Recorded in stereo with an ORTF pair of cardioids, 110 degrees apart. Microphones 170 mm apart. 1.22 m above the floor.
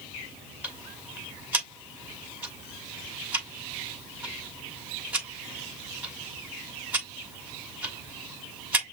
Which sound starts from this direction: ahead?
Ticking, at 0.6 s.